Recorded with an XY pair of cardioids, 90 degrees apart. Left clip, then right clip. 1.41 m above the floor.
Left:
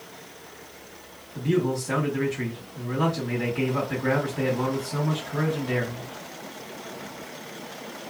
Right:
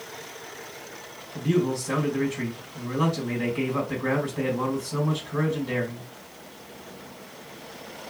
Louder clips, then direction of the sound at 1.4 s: Even; 45° right.